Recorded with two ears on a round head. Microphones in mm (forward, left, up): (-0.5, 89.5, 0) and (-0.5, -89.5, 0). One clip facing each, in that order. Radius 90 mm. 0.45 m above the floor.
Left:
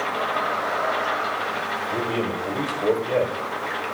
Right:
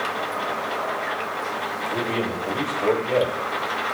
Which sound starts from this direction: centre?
A man speaking, at 1.9 s.